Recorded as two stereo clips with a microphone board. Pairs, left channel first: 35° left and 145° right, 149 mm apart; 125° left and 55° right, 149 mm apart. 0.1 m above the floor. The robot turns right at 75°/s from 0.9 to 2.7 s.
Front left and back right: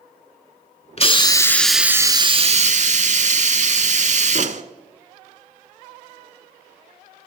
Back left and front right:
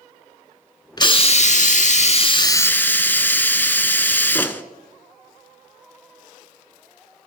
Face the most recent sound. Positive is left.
turn(degrees=-160)